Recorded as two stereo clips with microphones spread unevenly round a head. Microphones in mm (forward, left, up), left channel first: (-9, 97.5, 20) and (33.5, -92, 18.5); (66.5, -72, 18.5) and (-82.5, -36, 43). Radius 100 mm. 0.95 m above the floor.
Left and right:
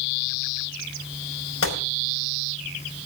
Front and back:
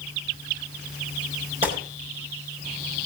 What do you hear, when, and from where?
1.6 s a gunshot: 105° left, 5 m